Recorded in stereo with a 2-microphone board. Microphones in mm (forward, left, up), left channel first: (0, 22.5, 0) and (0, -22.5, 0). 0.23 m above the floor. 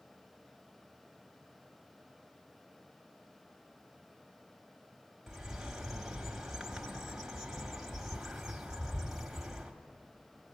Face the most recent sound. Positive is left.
turn(degrees=-5)  # may be behind; listen again after turning